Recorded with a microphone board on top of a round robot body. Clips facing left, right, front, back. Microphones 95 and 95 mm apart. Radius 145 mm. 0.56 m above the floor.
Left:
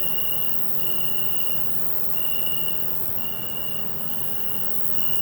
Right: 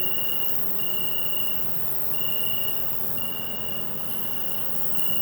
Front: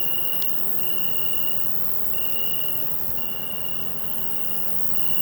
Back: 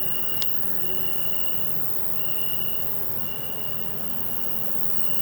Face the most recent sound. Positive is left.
turn(degrees=25)